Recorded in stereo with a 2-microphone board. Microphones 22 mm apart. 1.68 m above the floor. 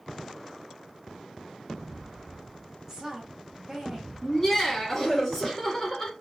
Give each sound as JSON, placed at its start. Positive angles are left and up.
{"t": 2.9, "sound": "a woman speaking", "side_deg": -20, "distance_m": 2.5}
{"t": 4.2, "sound": "laughter", "side_deg": 15, "distance_m": 2.5}